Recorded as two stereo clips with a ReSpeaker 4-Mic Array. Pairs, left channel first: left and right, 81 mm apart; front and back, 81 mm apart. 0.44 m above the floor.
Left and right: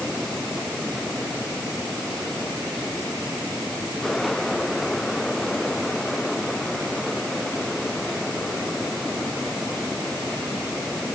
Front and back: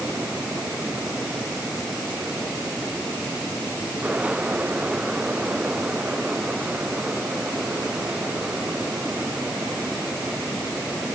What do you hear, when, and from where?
Only background noise.